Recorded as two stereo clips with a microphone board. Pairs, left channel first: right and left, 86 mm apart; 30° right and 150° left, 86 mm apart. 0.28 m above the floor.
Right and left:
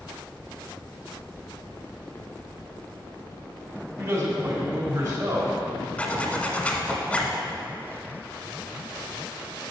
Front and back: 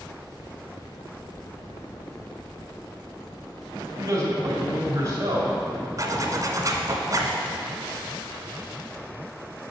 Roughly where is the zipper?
Behind.